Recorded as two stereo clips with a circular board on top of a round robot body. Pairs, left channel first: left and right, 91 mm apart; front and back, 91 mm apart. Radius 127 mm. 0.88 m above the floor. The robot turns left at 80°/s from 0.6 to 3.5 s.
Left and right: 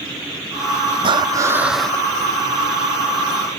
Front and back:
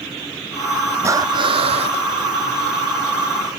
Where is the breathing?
120° right; by 2.0 s 160° left.